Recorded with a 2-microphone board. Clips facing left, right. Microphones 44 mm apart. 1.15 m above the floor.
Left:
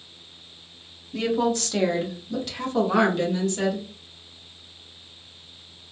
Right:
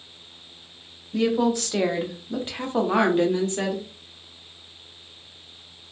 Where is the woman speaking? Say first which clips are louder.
Right 2 dB; 5° right (ahead or behind), 0.7 m; by 3.9 s 30° right (ahead or behind), 1.3 m.